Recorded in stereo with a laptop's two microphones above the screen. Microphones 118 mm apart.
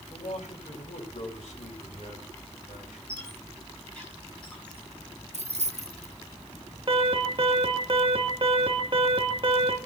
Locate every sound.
0.1 s a man speaking: 75° left (ahead or behind), 6 m
3.1 s a squeak: 10° left (ahead or behind), 8 m
5.3 s keys jangling: 70° right (ahead or behind), 0.9 m
6.9 s an alarm: 45° right (ahead or behind), 2.5 m